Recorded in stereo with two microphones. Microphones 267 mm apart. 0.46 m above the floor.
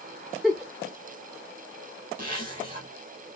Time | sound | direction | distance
0.4 | a giggle | centre (ahead or behind) | 1.1 m
2.2 | a zipper | 35° right (ahead or behind) | 2.5 m